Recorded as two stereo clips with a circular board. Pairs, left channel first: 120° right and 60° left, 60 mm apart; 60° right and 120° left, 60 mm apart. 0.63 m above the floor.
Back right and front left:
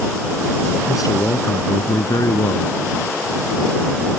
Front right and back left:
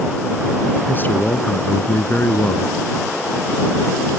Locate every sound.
0.9 s a man speaking: 120° right